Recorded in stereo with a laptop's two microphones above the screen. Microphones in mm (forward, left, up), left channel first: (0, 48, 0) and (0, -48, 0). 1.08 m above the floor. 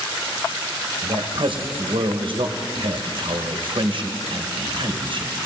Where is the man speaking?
60° right (ahead or behind), 1.3 m.